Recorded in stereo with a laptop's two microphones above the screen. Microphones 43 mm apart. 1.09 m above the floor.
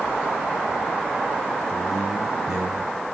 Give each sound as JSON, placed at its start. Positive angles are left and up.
{"t": 1.7, "sound": "a man speaking", "side_deg": -10, "distance_m": 2.5}